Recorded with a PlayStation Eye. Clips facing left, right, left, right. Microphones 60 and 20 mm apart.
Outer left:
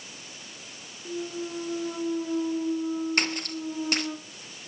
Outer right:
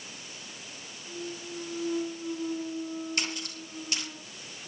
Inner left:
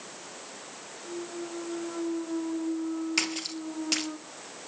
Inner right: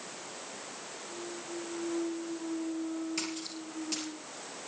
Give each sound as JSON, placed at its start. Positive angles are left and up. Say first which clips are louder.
{"t": 1.1, "sound": "a clunk", "louder": "outer left 6 dB, inner left 6 dB", "side_deg": 80, "distance_m": 4.5}
{"t": 3.2, "sound": "a splash", "louder": "outer left 6 dB, inner left 7 dB", "side_deg": 50, "distance_m": 2.5}